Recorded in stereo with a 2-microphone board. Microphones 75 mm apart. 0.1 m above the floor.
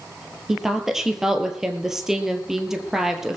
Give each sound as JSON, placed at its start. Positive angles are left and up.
{"t": 0.5, "sound": "a woman speaking", "side_deg": -5, "distance_m": 2.5}